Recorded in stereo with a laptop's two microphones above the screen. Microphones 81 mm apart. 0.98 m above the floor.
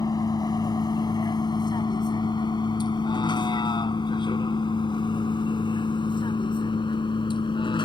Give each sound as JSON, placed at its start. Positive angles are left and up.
{"t": 0.0, "sound": "a vehicle", "side_deg": 55}